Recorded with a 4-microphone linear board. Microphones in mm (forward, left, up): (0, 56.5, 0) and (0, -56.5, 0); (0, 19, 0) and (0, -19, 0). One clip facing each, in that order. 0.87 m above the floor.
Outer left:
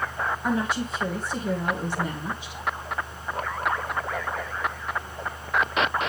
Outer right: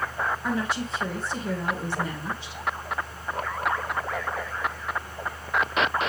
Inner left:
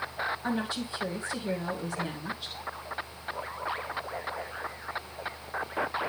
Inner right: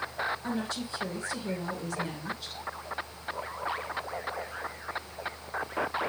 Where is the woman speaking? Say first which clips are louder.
Outer left 2 dB, inner left 2 dB; 15° left (ahead or behind), 2.5 m.